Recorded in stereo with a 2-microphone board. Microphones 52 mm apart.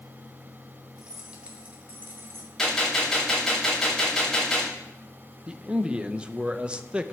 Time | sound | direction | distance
1.0 | keys jangling | 15° right (ahead or behind) | 2 m
2.6 | a gunshot | 10° left (ahead or behind) | 5.5 m
5.5 | a man speaking | 20° right (ahead or behind) | 0.7 m